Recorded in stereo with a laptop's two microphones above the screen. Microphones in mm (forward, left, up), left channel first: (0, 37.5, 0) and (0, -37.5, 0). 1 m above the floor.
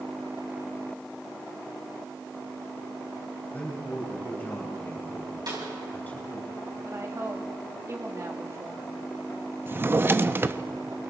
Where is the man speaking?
20° left (ahead or behind), 4 m.